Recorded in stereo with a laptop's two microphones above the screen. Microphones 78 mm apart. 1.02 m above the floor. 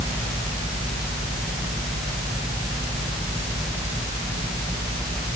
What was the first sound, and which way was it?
Only background noise.